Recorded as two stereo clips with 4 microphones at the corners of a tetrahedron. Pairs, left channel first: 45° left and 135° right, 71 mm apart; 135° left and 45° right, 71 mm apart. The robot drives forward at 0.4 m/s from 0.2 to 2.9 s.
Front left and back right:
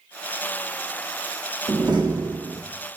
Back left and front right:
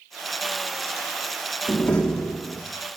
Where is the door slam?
150° right, 1.3 m; by 2.6 s 160° right, 1.6 m.